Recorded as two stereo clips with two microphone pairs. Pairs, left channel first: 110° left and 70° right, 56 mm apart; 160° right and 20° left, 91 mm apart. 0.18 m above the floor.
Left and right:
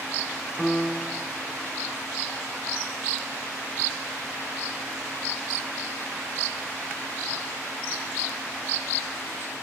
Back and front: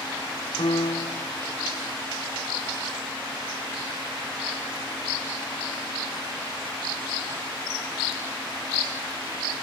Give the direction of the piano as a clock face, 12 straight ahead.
6 o'clock.